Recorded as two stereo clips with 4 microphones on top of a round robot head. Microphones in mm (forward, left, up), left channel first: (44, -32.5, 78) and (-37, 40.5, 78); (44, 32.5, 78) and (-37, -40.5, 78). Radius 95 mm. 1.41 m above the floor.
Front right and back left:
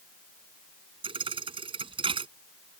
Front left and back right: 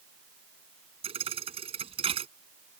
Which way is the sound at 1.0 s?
175° right.